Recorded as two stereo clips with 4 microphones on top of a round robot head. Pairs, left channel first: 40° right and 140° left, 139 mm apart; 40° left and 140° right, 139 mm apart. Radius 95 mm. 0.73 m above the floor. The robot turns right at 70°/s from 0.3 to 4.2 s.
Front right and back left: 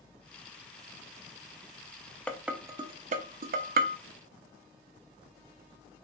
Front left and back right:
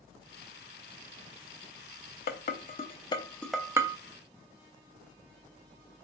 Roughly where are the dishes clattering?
Ahead left.